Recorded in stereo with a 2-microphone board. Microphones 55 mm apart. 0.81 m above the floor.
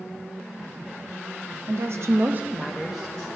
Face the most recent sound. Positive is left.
turn(degrees=15)  # may be behind; listen again after turning